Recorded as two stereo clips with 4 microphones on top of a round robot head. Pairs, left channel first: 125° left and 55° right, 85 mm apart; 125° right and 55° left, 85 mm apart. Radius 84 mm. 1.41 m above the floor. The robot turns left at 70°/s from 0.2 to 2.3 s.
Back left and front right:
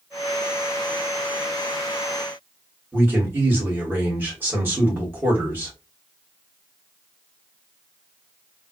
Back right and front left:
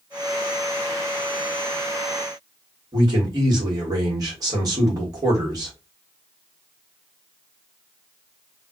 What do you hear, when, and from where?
2.9 s a man speaking: 10° left, 2.5 m